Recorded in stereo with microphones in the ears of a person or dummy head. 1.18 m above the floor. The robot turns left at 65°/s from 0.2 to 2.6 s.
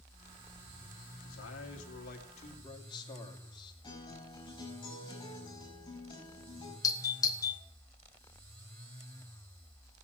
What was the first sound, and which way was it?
A man speaking, 120° left.